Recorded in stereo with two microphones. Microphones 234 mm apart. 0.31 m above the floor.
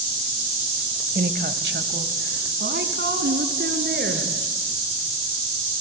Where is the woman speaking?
40° right (ahead or behind), 1.3 m; by 4.3 s 45° right (ahead or behind), 4.5 m.